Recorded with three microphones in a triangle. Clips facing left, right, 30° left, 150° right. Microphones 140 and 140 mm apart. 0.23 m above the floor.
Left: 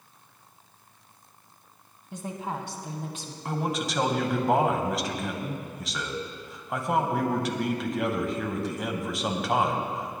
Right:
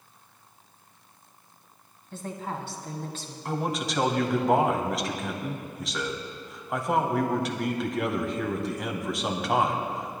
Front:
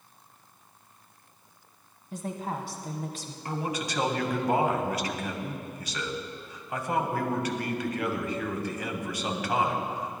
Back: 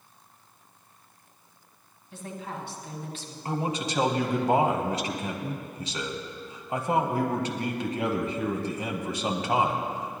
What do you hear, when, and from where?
2.1 s a woman speaking: 25° left, 1.5 m
3.5 s a man speaking: straight behind, 1.2 m